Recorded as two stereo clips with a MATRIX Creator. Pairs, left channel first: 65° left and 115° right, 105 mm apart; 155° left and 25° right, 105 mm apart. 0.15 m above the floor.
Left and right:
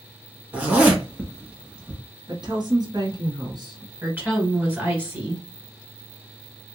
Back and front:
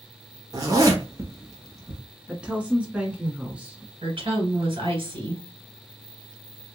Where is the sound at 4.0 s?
40° right, 1.9 m.